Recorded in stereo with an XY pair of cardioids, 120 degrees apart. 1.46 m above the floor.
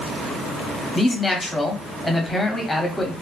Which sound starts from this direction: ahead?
A man speaking, at 0.9 s.